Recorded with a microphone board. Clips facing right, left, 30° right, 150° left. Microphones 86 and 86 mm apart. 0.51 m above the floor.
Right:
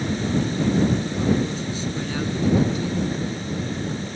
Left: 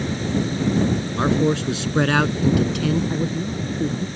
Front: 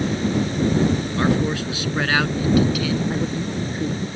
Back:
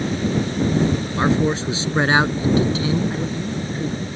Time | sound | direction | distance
1.2 | a man speaking | 85° left | ?
3.1 | a man speaking | 55° left | ?